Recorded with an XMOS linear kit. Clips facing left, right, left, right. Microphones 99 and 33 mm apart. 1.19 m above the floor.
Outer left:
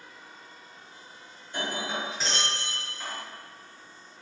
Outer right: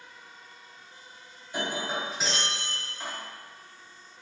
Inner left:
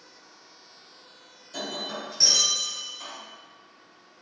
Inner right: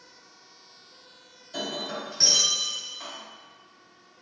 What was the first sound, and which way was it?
Breaking glass, 10° right (ahead or behind).